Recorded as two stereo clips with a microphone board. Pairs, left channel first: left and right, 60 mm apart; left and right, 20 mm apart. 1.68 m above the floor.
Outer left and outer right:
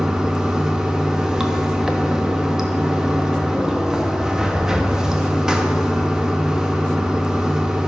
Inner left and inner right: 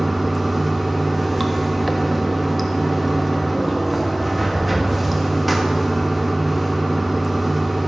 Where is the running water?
10° right (ahead or behind), 1.1 m.